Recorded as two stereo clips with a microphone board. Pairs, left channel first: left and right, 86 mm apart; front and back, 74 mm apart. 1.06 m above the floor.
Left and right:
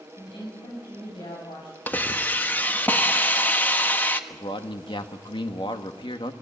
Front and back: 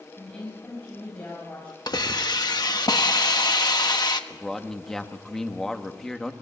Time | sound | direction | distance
0.2 | a woman speaking | 75° left | 7.5 m
1.9 | a hiss | 20° left | 1.3 m
4.3 | a man speaking | 85° left | 1.7 m